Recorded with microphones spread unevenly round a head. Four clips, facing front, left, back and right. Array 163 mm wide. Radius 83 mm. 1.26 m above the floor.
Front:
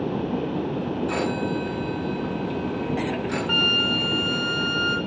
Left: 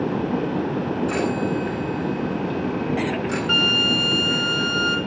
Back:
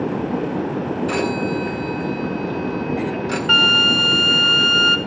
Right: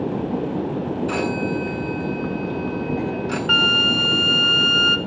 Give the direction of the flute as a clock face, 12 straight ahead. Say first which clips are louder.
Right 2 dB, back 6 dB; 6 o'clock.